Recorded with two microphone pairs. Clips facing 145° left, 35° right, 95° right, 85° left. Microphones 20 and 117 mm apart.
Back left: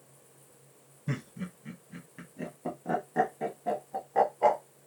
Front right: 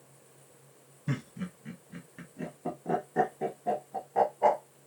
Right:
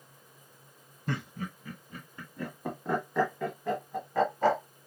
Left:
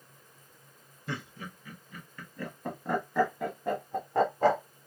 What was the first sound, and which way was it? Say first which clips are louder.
Laughter: front right 1 dB, right 4 dB; 110° right.